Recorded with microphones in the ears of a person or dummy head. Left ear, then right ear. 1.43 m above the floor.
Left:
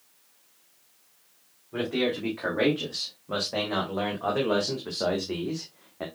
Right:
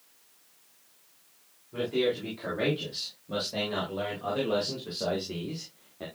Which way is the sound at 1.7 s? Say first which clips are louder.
Even; 35° left (ahead or behind).